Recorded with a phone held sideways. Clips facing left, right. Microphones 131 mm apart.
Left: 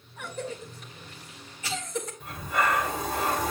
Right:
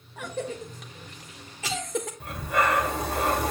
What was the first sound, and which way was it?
A cough, 80° right.